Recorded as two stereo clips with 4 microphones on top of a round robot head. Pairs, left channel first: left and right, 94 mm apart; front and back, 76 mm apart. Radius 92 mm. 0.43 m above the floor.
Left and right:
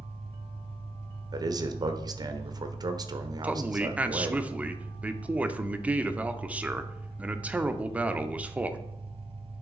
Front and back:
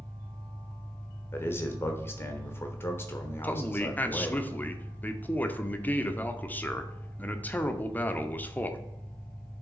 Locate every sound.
0.0 s an engine running: 75° right, 1.2 m
1.3 s a man speaking: 55° right, 1.2 m
3.4 s a man speaking: 30° right, 0.9 m